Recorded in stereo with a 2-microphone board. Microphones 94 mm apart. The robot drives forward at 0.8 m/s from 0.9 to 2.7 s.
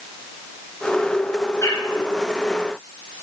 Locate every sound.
1.6 s a bird: 35° left (ahead or behind), 3.5 m